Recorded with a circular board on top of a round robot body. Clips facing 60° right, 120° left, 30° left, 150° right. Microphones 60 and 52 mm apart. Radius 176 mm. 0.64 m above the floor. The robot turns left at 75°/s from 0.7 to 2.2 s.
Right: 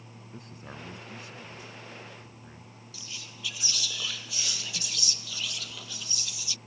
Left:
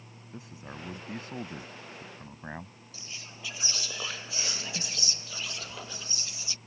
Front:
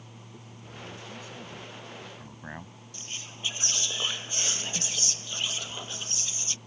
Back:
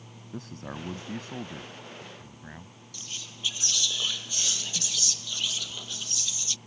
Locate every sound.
0.3 s a man speaking: 155° right; by 2.8 s 95° left
2.9 s whispering: 75° left